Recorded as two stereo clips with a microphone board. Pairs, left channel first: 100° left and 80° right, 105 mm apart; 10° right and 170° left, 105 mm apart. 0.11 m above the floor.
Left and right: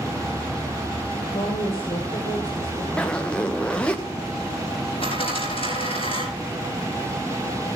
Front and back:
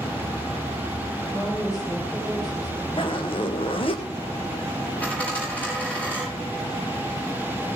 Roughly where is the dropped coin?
Ahead left.